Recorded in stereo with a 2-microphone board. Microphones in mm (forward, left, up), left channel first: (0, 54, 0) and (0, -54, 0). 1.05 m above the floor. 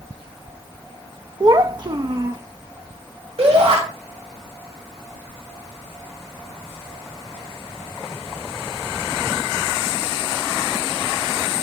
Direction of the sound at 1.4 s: 40° right (ahead or behind).